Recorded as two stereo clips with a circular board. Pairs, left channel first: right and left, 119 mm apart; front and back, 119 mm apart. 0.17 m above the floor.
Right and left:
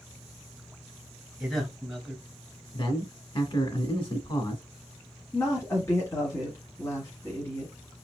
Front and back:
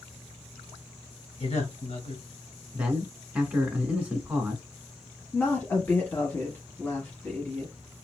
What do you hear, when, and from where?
1.4 s a man speaking: straight ahead, 2 m
2.7 s a man speaking: 105° right, 1.6 m
5.3 s a woman speaking: 60° right, 1.2 m